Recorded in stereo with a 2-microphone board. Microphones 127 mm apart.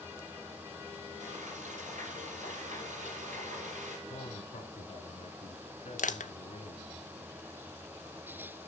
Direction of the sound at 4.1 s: 60° left (ahead or behind).